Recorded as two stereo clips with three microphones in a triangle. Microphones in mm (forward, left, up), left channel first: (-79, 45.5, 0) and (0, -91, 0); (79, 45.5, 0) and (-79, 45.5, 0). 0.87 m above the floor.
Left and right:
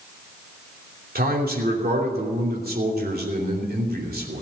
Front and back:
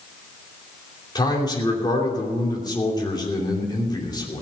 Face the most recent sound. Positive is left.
turn(degrees=-65)